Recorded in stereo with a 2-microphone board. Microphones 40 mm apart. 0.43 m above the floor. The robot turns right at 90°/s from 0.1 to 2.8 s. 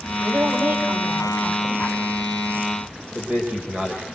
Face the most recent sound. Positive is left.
turn(degrees=-35)  # may be behind; listen again after turning